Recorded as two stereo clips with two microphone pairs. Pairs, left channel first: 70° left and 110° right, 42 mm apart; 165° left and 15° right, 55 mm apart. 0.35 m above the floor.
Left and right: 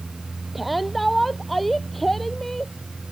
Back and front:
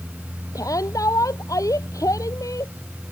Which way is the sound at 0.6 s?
160° left.